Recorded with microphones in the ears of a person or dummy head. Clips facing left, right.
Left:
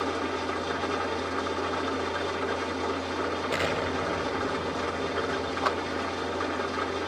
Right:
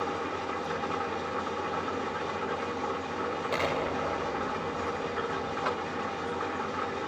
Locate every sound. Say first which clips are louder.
0.0 s an engine running: left 3 dB; 55° left (ahead or behind), 1.7 m
3.5 s an explosion: even; 10° left (ahead or behind), 0.6 m
5.6 s a clap: left 3 dB; 65° left (ahead or behind), 1.4 m